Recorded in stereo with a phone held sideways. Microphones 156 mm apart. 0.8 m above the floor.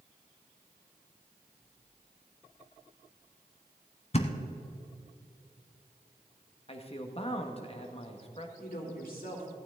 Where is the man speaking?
40° left (ahead or behind), 1.3 m.